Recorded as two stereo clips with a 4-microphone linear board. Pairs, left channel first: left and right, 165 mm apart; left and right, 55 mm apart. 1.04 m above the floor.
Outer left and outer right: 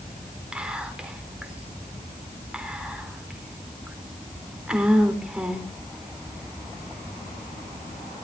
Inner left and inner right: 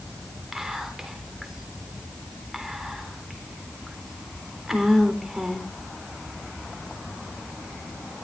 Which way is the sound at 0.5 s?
5° right (ahead or behind).